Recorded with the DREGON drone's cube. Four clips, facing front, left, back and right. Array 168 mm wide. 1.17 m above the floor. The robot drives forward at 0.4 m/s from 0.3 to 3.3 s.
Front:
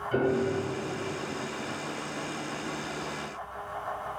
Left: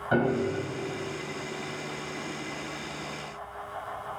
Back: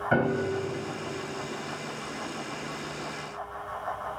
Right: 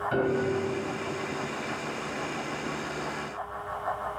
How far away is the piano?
About 3 m.